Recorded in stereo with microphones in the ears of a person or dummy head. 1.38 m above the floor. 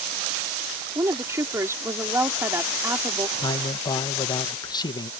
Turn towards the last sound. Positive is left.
turn(degrees=25)  # may be behind; listen again after turning